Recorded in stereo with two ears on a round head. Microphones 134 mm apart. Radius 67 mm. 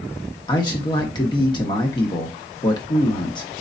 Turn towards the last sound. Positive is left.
turn(degrees=30)  # may be behind; listen again after turning